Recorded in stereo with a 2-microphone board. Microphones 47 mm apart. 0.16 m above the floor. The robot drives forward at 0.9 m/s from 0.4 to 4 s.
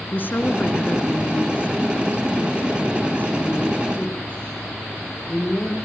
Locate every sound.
0.1 s a woman speaking: 45° left (ahead or behind), 2.0 m; by 5.7 s 25° left (ahead or behind), 3 m